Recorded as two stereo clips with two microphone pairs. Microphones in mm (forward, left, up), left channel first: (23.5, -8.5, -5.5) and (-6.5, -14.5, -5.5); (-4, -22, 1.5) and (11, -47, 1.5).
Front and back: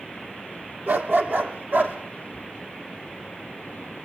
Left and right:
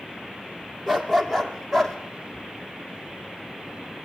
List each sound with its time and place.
0.9 s a dog barking: 150° right, 2.0 m; by 2.0 s 160° right, 3 m